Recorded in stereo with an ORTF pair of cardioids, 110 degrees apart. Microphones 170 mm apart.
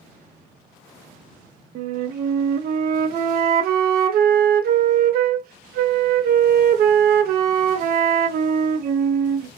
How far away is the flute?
About 0.6 m.